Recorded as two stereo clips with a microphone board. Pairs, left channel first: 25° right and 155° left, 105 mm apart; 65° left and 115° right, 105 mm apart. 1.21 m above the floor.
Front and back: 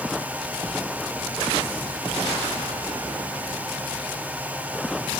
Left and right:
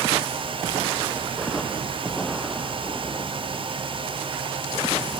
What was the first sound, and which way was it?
Only background noise.